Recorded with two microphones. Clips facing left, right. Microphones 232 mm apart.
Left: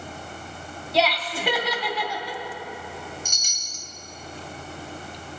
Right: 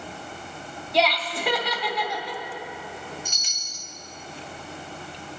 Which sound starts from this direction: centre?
Laughter, at 0.9 s.